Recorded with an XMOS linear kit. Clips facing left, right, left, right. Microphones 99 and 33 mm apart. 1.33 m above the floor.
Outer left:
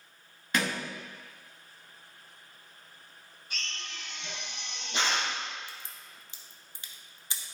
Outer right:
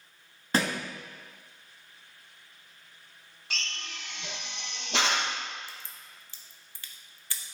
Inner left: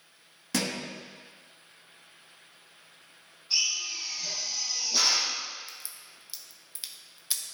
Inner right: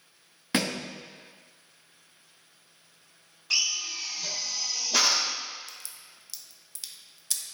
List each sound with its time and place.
0.5 s a thud: 30° right (ahead or behind), 0.9 m
3.5 s a drill: 75° right (ahead or behind), 1.2 m
5.7 s a crack: 20° left (ahead or behind), 0.7 m